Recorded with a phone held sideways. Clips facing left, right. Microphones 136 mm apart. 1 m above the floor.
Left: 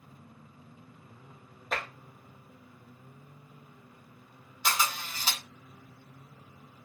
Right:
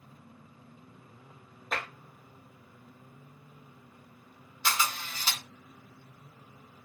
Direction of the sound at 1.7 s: Centre (ahead or behind).